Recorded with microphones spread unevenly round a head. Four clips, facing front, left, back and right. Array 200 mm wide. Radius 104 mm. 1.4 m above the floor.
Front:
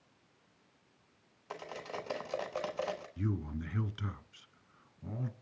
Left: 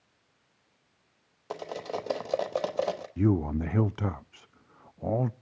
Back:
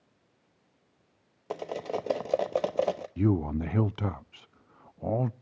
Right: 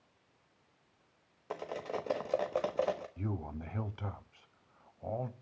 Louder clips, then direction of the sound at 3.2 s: Left 14 dB, back 11 dB; 115° left.